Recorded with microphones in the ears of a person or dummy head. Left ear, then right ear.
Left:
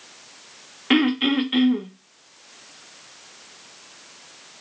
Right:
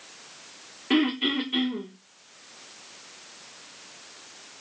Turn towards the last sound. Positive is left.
turn(degrees=40)  # may be behind; listen again after turning